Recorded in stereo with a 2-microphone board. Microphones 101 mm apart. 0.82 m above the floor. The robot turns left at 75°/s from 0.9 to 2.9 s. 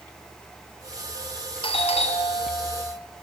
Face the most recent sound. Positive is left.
turn(degrees=20)